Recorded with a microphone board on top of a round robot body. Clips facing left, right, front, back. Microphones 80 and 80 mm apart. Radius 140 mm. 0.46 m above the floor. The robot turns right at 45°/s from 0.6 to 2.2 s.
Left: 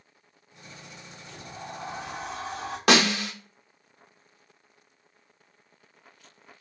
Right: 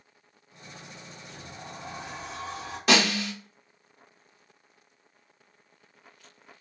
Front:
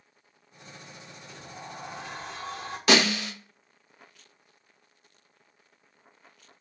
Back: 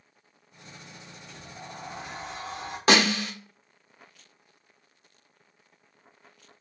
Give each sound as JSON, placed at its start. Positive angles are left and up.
{"t": 1.3, "sound": "a sliding door", "azimuth_deg": 65, "distance_m": 2.0}
{"t": 2.9, "sound": "a snare drum", "azimuth_deg": 125, "distance_m": 1.1}